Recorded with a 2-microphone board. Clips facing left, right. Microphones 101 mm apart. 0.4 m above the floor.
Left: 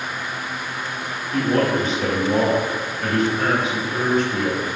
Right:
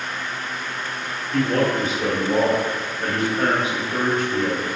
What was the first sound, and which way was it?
A man speaking, 15° left (ahead or behind).